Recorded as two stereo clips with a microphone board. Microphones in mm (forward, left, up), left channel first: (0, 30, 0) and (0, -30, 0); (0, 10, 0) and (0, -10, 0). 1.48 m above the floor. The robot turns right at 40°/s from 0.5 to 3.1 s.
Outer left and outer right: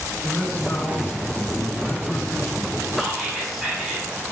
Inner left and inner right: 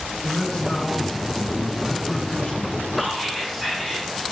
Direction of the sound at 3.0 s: 5° left (ahead or behind).